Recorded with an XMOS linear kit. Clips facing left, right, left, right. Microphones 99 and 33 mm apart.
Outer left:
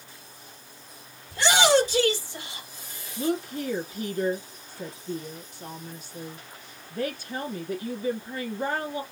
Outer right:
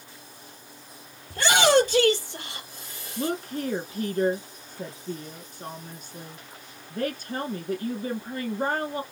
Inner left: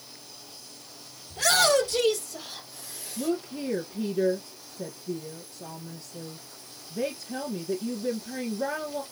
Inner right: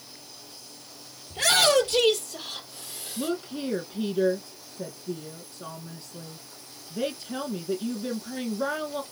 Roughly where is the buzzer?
I don't hear a buzzer.